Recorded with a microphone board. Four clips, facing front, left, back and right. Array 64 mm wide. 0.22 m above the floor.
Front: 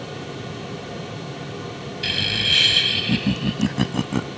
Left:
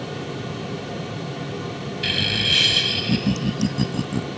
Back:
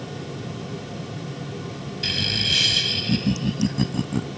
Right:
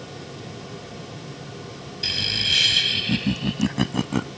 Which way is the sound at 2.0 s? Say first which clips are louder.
Left 4 dB, front 3 dB; 60° left.